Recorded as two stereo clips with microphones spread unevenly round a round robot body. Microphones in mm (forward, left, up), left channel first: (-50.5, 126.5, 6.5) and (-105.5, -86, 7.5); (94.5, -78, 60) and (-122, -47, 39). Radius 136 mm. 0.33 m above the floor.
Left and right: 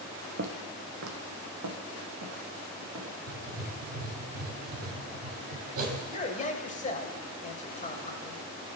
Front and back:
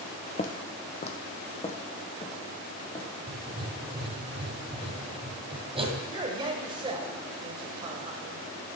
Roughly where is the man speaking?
Behind left.